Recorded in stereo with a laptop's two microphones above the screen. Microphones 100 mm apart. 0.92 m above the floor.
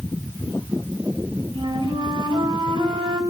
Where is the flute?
55° right (ahead or behind), 3 m.